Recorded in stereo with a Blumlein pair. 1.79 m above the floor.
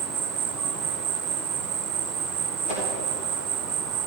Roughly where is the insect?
Ahead right.